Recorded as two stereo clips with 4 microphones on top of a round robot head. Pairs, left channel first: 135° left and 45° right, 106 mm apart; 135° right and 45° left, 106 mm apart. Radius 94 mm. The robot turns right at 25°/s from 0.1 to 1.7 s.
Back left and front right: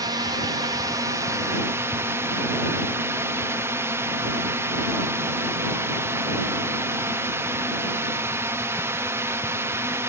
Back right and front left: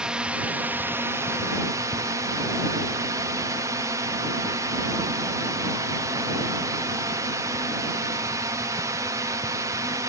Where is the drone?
30° right; by 10.1 s 10° left.